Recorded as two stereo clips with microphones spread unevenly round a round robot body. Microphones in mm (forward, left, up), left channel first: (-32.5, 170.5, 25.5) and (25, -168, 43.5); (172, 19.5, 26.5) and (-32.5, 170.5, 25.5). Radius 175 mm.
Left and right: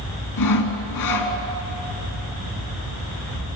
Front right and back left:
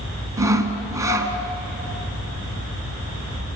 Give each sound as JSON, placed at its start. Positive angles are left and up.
{"t": 0.4, "sound": "sawing", "azimuth_deg": 65, "distance_m": 2.5}